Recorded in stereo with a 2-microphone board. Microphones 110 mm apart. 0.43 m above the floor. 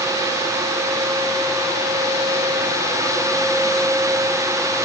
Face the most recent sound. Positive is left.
No sound to turn to.